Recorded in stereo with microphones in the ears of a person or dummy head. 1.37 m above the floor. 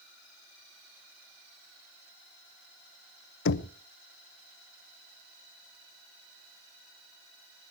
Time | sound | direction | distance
3.5 | knocking | 60° left (ahead or behind) | 0.7 m